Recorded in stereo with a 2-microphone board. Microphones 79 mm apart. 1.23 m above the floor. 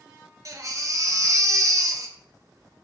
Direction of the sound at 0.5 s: 45° right (ahead or behind).